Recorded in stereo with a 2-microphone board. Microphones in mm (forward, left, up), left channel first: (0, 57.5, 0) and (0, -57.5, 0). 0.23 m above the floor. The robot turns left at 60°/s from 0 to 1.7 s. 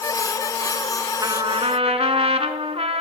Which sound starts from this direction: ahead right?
A trumpet, at 1.2 s.